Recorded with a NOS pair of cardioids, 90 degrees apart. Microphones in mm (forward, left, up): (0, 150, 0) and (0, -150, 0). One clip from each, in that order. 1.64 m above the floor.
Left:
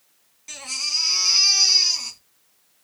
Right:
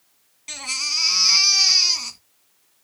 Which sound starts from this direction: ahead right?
A baby crying, at 0.5 s.